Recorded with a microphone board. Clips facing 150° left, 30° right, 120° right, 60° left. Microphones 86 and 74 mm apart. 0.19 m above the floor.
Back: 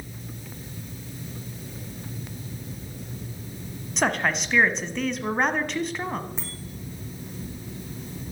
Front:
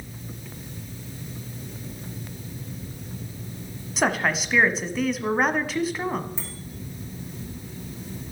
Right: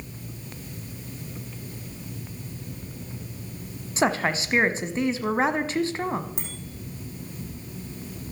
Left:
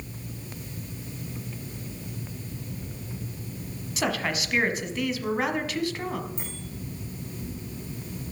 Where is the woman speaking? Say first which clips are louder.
Front 1 dB, right 5 dB; 115° right, 1.1 m.